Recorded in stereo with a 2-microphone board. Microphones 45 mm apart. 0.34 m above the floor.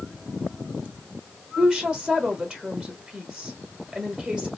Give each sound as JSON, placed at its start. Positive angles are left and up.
{"t": 1.6, "sound": "a woman speaking", "side_deg": -25, "distance_m": 1.2}